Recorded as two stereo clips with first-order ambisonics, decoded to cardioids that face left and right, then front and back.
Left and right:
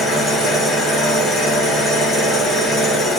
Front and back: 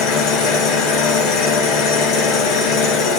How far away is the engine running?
About 1.1 m.